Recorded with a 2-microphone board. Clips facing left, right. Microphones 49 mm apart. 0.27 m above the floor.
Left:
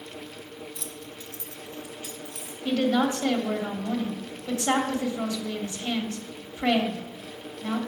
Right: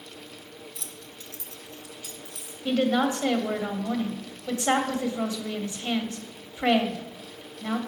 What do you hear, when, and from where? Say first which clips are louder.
0.8 s keys jangling: left 4 dB; 5° right (ahead or behind), 0.6 m; by 2.5 s 25° left (ahead or behind), 2.0 m
2.6 s a woman speaking: even; 20° right (ahead or behind), 1.1 m